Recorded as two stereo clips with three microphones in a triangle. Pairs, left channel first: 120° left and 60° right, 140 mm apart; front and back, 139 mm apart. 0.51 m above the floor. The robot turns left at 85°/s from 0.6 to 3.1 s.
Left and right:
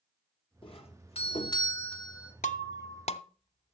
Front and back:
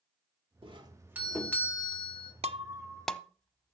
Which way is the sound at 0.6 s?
155° left.